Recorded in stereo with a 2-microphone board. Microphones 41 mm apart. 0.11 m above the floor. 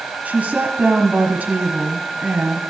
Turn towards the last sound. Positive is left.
turn(degrees=-45)  # may be behind; listen again after turning